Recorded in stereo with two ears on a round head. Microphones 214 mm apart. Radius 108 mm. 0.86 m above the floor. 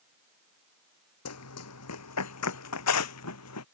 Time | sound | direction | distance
1.2 | running footsteps | 70° left (ahead or behind) | ?